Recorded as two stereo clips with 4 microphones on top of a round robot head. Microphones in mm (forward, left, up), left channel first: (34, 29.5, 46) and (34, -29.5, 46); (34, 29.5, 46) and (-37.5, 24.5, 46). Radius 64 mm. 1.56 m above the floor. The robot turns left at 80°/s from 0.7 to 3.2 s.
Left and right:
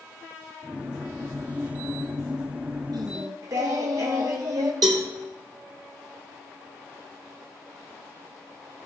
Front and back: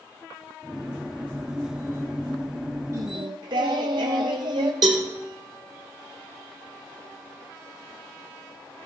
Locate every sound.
2.9 s singing: 120° right, 0.8 m; by 4.7 s 140° right, 0.8 m
4.8 s a cowbell: 130° right, 1.0 m